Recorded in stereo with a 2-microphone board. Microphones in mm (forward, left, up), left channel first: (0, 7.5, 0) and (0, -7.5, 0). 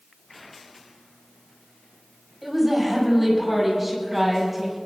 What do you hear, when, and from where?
2.4 s a woman speaking: 15° right (ahead or behind), 5.5 m